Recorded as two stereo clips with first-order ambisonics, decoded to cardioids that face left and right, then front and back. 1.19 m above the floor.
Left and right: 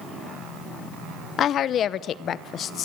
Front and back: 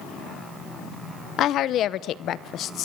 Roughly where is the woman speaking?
Ahead left.